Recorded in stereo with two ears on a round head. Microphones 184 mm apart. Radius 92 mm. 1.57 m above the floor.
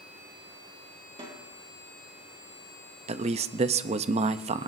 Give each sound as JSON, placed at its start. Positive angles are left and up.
{"t": 1.2, "sound": "a snare drum", "side_deg": -25, "distance_m": 4.0}
{"t": 3.1, "sound": "a man speaking", "side_deg": -30, "distance_m": 0.6}